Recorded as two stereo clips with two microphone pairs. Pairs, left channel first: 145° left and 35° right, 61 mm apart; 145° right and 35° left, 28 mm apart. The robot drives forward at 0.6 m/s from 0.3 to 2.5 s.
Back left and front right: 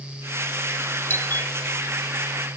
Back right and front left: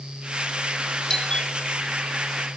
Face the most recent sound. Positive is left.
turn(degrees=175)